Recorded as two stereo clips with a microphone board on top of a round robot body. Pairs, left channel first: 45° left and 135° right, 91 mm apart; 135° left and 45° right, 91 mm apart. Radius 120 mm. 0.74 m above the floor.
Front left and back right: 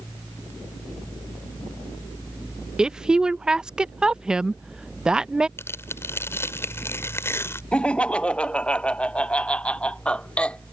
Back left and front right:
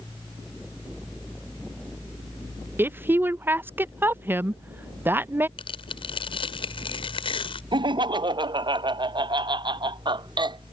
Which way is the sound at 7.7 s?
30° right.